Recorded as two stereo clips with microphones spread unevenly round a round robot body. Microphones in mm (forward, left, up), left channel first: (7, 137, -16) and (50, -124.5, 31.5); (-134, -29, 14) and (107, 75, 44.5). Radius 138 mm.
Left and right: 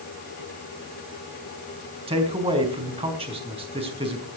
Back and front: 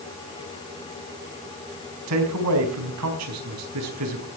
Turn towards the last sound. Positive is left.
turn(degrees=-10)